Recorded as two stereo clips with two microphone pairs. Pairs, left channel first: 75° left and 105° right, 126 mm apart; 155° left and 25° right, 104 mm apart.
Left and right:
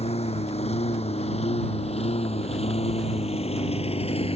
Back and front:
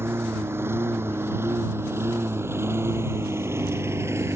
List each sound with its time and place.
0.0 s a lawn mower: 40° left